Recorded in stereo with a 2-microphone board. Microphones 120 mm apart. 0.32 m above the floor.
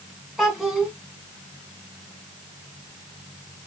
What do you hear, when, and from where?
0.4 s a child speaking: centre (ahead or behind), 2 m